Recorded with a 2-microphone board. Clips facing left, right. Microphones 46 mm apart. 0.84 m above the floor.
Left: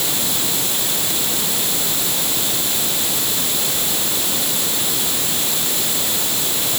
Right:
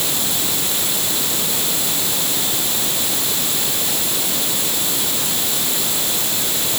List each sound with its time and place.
Only background noise.